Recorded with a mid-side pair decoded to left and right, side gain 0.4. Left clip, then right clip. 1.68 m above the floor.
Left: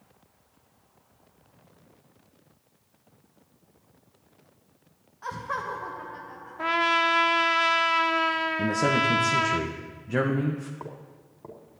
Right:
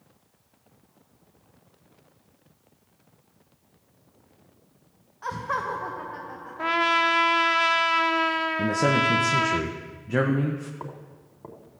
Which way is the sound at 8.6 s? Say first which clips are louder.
Right 2 dB; 10° right.